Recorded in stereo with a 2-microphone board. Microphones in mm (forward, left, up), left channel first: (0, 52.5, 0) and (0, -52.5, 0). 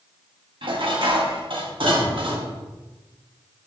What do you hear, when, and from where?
0.6 s dishes clattering: 55° right (ahead or behind), 1.6 m